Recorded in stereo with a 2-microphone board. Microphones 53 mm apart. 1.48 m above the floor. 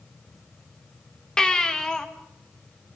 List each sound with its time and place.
1.4 s a baby crying: 15° left (ahead or behind), 1.8 m